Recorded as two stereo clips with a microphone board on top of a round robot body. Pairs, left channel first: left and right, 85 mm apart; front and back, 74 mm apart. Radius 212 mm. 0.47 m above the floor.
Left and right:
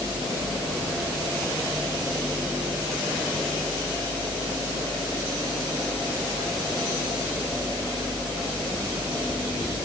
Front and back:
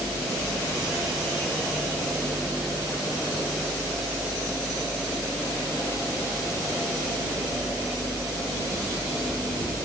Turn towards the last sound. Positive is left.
No sound to turn to.